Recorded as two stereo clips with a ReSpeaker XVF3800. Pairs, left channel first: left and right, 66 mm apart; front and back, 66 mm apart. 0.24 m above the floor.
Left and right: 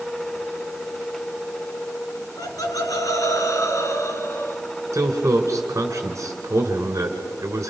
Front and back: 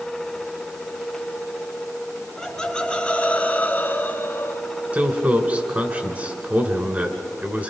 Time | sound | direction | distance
2.4 | laughter | 80° left | 3 m
4.9 | a man speaking | 120° right | 2 m